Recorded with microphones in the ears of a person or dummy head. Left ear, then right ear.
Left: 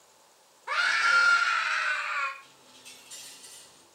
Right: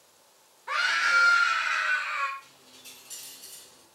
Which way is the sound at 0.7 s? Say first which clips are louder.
Even; 10° left (ahead or behind).